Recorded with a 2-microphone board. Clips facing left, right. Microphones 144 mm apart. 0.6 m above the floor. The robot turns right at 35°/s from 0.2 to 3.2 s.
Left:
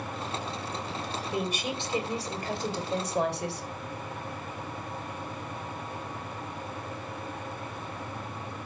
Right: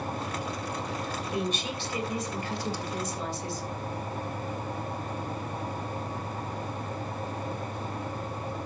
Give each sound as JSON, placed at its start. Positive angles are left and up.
{"t": 1.3, "sound": "a woman speaking", "azimuth_deg": 5, "distance_m": 2.5}